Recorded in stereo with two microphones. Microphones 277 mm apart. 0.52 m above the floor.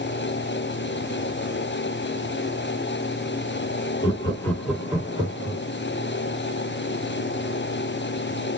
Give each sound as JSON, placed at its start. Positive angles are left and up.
{"t": 4.0, "sound": "laughter", "side_deg": 20, "distance_m": 1.1}